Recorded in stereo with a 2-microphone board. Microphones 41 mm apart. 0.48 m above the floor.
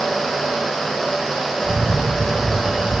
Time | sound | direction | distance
1.6 | a camera shutter | 10° right (ahead or behind) | 4 m